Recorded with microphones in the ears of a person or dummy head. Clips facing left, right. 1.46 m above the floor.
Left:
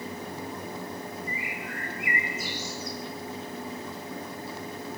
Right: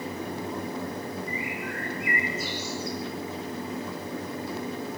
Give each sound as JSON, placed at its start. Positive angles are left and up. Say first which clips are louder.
{"t": 1.3, "sound": "a bird", "louder": "right 4 dB", "side_deg": 70, "distance_m": 9.5}